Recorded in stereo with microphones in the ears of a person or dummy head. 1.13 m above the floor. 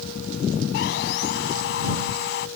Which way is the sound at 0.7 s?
60° left (ahead or behind).